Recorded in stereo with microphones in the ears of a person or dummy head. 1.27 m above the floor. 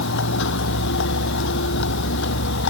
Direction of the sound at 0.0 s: 70° left (ahead or behind).